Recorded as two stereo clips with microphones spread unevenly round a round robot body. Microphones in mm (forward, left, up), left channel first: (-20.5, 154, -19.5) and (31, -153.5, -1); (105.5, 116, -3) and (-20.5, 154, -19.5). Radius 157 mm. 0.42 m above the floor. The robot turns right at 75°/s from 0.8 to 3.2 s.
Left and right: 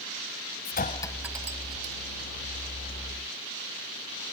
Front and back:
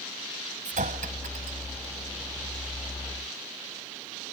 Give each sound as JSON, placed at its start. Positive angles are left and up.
{"t": 0.7, "sound": "a clink", "azimuth_deg": 160}